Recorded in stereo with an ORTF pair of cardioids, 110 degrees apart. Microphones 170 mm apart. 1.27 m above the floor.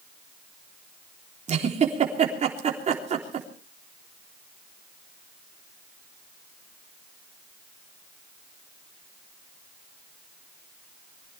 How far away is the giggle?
About 3.5 m.